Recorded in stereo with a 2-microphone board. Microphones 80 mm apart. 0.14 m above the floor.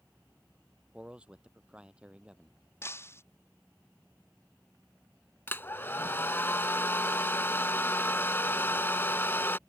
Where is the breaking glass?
30° left (ahead or behind).